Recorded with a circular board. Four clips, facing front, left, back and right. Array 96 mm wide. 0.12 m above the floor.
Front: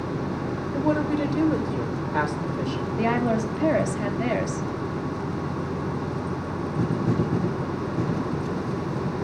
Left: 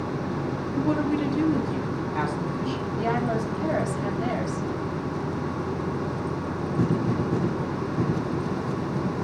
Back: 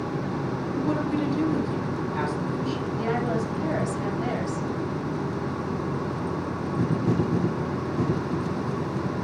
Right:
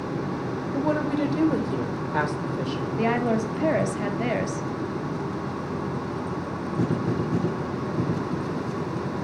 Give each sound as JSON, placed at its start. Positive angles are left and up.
{"t": 0.7, "sound": "a woman speaking", "azimuth_deg": -50, "distance_m": 4.0}
{"t": 3.0, "sound": "a woman speaking", "azimuth_deg": -50, "distance_m": 2.5}